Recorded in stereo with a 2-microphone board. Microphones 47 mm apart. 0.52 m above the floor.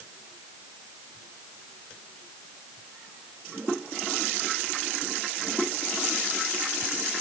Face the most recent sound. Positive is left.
No sound to turn to.